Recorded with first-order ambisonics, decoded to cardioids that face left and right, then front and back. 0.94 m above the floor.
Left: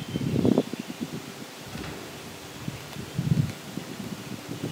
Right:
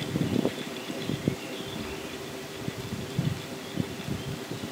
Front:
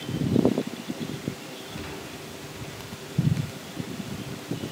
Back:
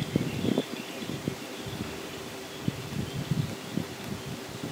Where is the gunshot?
65° left, 3.5 m.